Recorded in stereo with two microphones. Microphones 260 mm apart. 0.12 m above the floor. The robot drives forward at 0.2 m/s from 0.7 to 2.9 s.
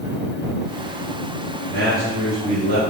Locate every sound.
1.7 s a man speaking: 40° right (ahead or behind), 1.6 m